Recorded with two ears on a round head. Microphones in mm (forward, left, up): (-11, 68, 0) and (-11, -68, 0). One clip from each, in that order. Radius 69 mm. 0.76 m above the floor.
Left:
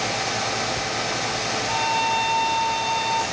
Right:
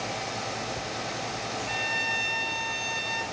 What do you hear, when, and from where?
1.7 s a violin: 55° right (ahead or behind), 3 m